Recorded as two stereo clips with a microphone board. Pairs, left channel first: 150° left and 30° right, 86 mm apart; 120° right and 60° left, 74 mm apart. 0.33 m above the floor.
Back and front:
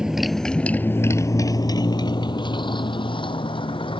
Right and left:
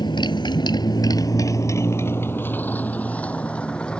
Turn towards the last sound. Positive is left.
turn(degrees=160)